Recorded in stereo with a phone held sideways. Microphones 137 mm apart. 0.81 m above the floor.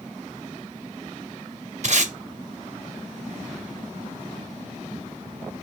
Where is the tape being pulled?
55° right (ahead or behind), 0.7 m.